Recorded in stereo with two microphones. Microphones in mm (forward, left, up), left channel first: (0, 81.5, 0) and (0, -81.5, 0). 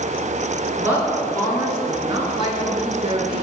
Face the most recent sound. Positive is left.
turn(degrees=-40)  # may be behind; listen again after turning